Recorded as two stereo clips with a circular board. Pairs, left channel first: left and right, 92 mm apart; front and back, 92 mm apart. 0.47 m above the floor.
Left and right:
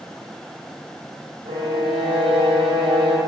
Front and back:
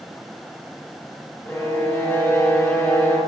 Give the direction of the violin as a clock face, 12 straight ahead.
2 o'clock.